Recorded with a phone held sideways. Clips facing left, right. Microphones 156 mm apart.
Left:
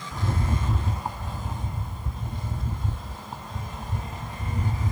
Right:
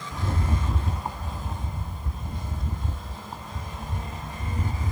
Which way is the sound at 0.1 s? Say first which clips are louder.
Left 1 dB; centre (ahead or behind).